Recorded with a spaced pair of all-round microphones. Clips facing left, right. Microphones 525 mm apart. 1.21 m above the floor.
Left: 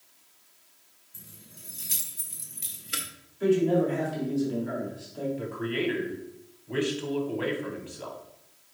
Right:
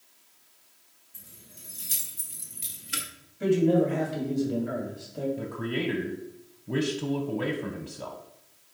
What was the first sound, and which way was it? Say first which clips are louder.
Keys jangling: left 2 dB; centre (ahead or behind).